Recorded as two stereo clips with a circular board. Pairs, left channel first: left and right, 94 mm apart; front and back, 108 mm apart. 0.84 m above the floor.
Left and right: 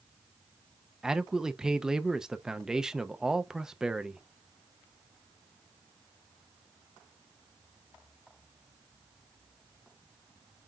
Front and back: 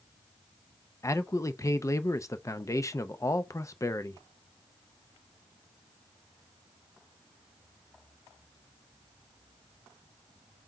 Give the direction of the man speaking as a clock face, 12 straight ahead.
12 o'clock.